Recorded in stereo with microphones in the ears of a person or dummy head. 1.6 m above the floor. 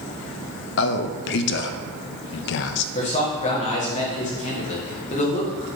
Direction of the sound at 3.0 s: 35° left (ahead or behind).